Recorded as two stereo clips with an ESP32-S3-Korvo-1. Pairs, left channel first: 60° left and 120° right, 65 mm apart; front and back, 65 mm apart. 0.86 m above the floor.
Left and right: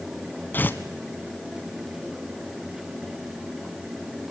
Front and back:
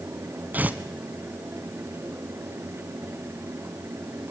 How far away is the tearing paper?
About 1.5 m.